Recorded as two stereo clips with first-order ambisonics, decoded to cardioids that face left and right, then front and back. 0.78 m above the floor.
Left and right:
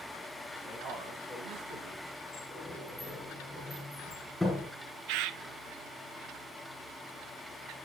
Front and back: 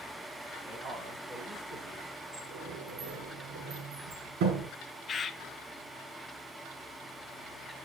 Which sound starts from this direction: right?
A bird, at 5.1 s.